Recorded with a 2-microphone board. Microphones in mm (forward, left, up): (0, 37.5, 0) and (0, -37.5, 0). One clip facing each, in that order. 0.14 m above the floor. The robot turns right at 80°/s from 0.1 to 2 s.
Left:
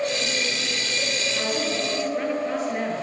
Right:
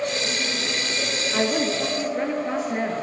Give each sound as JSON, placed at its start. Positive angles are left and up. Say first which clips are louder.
{"t": 1.3, "sound": "a woman speaking", "louder": "right 5 dB", "azimuth_deg": -75, "distance_m": 2.5}